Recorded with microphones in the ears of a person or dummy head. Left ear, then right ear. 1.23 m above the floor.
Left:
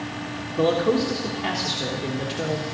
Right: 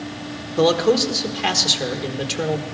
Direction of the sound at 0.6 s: 45° right (ahead or behind).